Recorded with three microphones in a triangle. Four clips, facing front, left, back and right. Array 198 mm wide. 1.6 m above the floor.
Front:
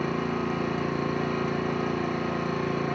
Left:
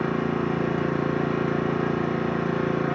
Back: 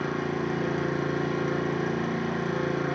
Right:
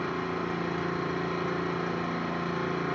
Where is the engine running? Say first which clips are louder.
Left 6 dB, front 1 dB; 80° left, 1.0 m.